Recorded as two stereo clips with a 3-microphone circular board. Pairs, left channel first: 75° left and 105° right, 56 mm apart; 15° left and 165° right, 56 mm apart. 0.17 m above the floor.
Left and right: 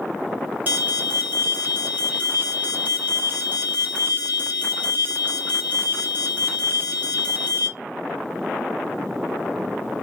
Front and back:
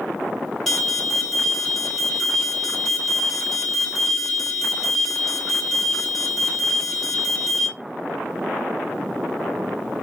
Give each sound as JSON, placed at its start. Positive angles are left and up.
{"t": 0.7, "sound": "an alarm", "azimuth_deg": -70, "distance_m": 1.6}